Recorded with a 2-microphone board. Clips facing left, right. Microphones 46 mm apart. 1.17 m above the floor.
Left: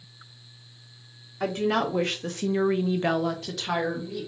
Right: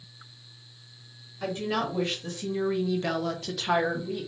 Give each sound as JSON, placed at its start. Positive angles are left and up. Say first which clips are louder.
{"t": 1.4, "sound": "a woman speaking", "louder": "left 4 dB", "side_deg": 65, "distance_m": 1.0}